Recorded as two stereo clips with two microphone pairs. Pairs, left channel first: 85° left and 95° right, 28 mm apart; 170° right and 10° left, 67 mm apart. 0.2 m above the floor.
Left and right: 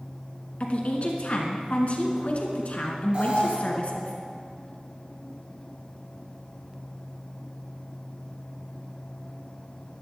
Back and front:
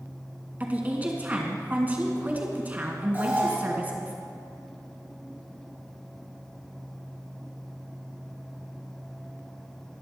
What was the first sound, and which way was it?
A woman speaking, 65° left.